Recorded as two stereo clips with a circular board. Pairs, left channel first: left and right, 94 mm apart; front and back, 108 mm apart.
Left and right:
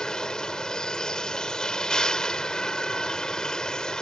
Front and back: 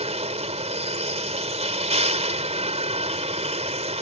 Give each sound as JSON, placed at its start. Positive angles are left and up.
{"t": 0.0, "sound": "a vehicle", "azimuth_deg": 170}